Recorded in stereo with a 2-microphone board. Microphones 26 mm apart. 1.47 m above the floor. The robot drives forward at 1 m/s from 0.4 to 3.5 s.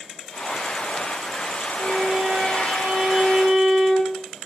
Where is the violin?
80° right, 2 m; by 4.2 s 50° right (ahead or behind), 3 m.